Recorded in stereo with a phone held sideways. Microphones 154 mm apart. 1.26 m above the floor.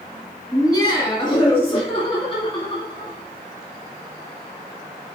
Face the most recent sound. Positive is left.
turn(degrees=35)  # may be behind; listen again after turning